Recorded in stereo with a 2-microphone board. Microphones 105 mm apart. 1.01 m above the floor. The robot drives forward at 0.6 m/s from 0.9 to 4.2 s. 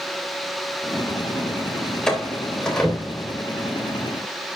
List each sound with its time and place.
2.1 s a door slam: 10° left (ahead or behind), 3 m; by 3.4 s 5° left (ahead or behind), 3.5 m